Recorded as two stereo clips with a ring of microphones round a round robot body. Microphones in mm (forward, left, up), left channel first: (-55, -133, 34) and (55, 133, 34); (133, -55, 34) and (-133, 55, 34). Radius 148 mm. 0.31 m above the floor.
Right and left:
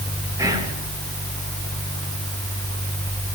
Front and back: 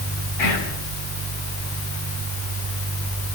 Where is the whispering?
10° right, 4.5 m.